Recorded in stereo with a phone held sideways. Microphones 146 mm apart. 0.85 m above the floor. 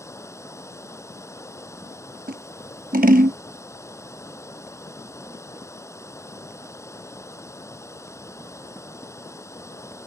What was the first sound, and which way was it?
Running water, 20° left (ahead or behind).